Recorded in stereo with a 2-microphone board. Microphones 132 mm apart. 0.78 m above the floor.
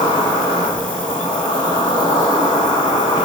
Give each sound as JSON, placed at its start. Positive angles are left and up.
{"t": 0.0, "sound": "an insect", "side_deg": 35, "distance_m": 0.8}